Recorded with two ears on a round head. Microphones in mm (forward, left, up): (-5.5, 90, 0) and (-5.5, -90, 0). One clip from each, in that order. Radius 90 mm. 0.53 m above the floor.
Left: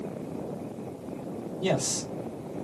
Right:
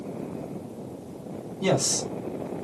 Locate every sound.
1.6 s a man speaking: 50° right (ahead or behind), 1.8 m